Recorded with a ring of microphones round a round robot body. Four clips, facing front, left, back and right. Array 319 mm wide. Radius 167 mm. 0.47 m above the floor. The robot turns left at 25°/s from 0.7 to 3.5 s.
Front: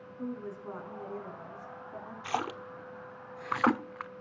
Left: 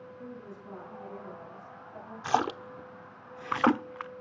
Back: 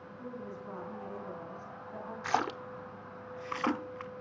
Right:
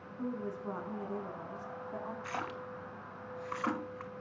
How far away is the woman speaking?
About 4.5 m.